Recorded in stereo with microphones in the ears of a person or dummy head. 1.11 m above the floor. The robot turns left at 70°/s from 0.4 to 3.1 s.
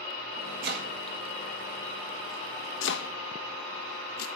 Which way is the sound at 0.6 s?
60° right (ahead or behind).